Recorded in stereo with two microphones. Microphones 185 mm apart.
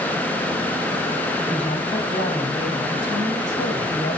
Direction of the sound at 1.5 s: 45° left (ahead or behind).